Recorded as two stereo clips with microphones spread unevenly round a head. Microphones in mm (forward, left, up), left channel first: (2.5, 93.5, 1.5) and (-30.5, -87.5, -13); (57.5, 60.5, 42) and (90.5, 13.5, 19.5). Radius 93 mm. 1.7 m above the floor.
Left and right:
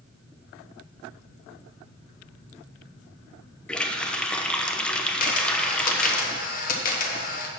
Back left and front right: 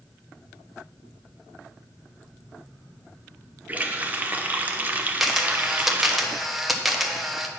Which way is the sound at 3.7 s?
20° left.